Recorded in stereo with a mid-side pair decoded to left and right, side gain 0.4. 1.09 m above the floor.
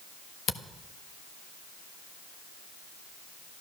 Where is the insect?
I don't hear an insect.